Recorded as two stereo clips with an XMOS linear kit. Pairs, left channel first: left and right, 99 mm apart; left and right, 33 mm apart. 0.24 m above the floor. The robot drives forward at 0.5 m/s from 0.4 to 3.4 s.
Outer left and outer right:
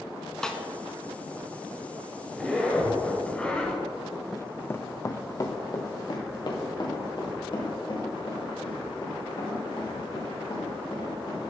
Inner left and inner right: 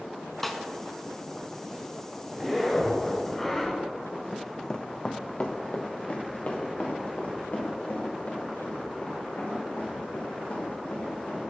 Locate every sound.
0.4 s a snare drum: 5° left (ahead or behind), 0.7 m
2.3 s a zipper: 10° left (ahead or behind), 1.8 m
4.3 s running footsteps: centre (ahead or behind), 0.5 m; by 11.5 s 55° left (ahead or behind), 6.5 m